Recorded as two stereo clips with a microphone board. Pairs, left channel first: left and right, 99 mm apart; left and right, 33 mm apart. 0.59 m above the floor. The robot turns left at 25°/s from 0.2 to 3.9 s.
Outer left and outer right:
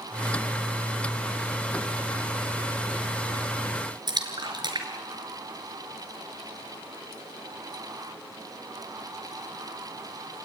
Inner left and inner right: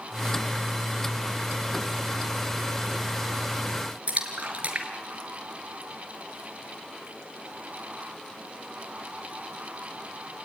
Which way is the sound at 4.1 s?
45° right (ahead or behind).